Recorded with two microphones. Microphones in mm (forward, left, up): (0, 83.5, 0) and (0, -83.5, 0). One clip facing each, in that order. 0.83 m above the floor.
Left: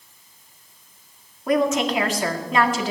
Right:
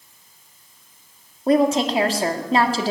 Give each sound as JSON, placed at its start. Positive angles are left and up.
{"t": 1.5, "sound": "a woman speaking", "side_deg": -30, "distance_m": 1.9}